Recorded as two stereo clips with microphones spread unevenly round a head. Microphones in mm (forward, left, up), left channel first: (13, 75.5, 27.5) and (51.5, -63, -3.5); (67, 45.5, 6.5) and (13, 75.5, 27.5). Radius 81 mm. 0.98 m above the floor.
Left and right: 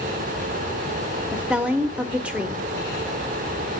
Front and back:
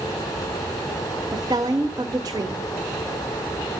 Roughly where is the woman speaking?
Behind right.